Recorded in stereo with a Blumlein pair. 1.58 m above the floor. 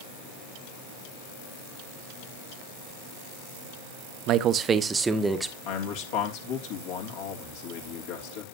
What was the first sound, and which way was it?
A man speaking, 35° right.